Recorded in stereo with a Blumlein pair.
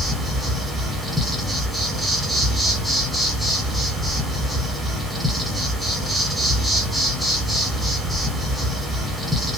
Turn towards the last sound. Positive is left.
turn(degrees=0)